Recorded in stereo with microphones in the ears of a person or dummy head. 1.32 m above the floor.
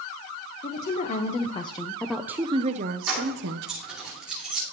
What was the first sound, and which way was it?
A woman speaking, 50° left (ahead or behind).